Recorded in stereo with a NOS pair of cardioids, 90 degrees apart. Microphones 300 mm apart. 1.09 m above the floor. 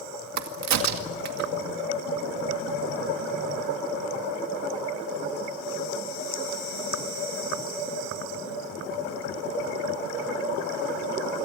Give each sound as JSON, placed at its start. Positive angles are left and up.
{"t": 0.4, "sound": "a crack", "azimuth_deg": -65, "distance_m": 2.0}